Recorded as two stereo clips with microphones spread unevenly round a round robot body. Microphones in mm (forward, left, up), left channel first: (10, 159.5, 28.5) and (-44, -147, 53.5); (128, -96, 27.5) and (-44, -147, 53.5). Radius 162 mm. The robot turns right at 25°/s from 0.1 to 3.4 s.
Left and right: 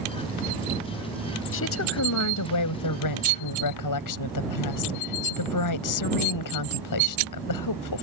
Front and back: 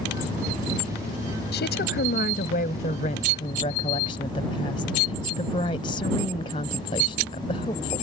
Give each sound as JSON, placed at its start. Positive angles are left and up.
{"t": 1.5, "sound": "a woman speaking", "azimuth_deg": 35}